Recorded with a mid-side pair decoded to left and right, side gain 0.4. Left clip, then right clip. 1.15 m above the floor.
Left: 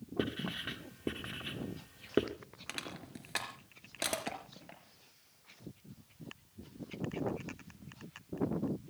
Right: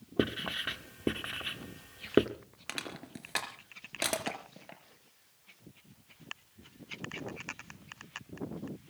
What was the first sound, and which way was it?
Writing, 35° right.